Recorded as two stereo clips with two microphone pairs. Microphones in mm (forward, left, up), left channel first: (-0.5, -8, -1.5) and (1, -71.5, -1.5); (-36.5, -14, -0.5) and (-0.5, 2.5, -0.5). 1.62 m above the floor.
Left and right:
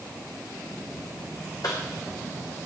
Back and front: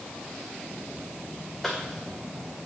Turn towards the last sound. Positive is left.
turn(degrees=115)